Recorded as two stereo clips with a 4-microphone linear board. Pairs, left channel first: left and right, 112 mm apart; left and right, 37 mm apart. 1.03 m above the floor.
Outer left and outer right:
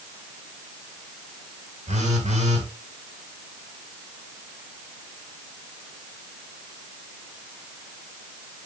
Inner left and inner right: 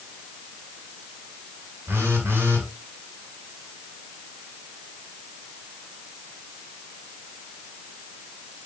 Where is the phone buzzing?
80° right, 3.5 m.